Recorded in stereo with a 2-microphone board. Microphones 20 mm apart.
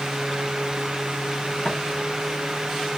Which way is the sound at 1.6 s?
25° left (ahead or behind).